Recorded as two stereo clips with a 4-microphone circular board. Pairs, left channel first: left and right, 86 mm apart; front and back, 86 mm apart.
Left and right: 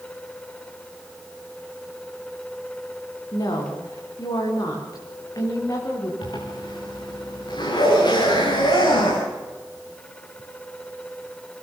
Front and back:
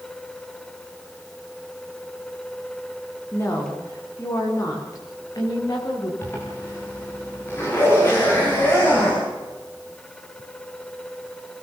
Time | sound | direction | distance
3.3 | a woman speaking | 55° left | 8.5 m
6.2 | a zipper | 60° left | 10 m